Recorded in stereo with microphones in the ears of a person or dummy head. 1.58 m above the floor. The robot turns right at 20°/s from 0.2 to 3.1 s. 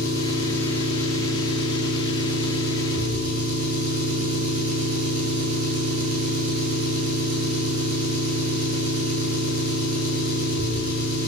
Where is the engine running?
160° left, 8 m; by 11.3 s 140° right, 8 m.